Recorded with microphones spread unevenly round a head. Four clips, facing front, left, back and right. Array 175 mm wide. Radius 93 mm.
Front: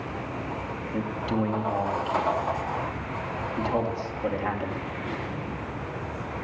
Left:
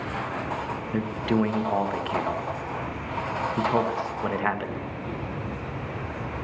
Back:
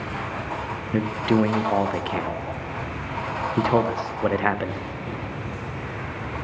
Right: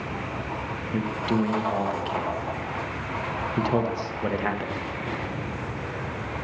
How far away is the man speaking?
About 1.5 m.